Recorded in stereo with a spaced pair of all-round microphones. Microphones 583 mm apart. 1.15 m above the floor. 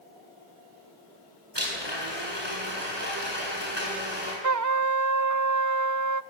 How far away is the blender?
About 8.5 m.